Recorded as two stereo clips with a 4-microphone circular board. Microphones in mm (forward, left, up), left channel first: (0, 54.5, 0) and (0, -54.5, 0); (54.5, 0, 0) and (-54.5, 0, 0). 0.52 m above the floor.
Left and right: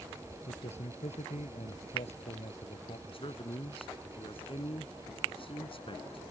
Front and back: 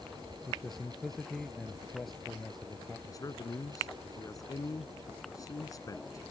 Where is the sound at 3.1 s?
55° left.